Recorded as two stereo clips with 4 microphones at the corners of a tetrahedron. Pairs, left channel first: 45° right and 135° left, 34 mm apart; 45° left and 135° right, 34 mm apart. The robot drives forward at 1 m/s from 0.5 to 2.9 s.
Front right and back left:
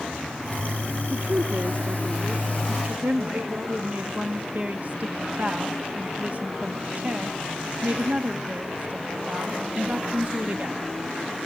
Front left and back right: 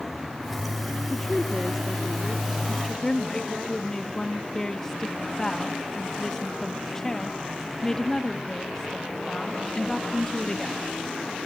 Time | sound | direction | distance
1.1 | a woman speaking | 115° left | 0.9 m
2.7 | a woman speaking | 100° left | 0.9 m